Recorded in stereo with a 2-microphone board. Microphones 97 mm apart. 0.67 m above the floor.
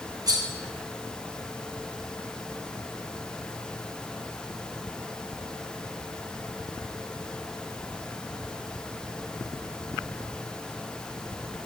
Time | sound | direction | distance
0.3 | cutlery clinking | 40° right (ahead or behind) | 0.9 m